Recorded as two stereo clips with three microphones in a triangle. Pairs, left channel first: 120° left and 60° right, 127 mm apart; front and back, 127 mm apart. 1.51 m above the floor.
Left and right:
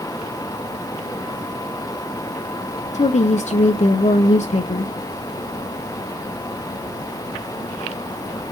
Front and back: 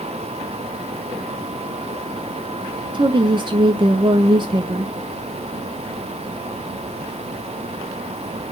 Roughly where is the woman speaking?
Behind left.